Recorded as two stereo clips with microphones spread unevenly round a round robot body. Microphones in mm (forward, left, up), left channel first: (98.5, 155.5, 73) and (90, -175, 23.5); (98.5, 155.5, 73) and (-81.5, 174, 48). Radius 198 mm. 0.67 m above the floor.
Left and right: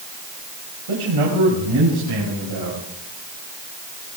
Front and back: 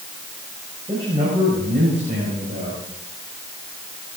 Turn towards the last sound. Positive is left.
turn(degrees=-130)